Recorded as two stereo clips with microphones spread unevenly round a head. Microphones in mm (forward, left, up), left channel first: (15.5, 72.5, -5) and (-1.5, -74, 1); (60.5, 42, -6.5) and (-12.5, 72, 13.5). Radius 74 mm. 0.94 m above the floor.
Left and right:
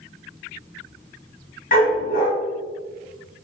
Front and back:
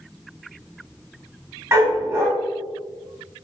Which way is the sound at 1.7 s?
110° left.